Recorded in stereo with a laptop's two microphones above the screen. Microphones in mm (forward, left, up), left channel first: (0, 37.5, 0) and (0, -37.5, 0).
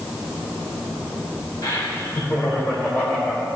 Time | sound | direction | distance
1.6 | laughter | 55° left (ahead or behind) | 3.5 m